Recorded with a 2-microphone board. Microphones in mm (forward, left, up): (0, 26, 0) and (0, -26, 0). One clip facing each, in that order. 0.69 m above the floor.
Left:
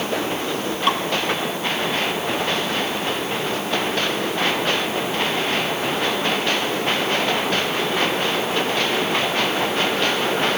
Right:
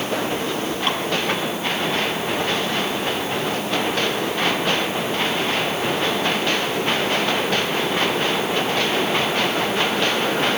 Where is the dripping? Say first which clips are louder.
Left 5 dB; centre (ahead or behind), 3.5 m.